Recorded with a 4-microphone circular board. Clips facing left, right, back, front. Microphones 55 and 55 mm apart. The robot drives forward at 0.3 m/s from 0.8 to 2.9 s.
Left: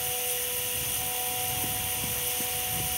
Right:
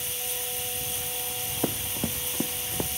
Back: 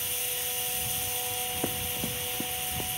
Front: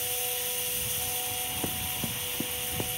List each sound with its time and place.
1.6 s running footsteps: 105° right; by 2.9 s 75° right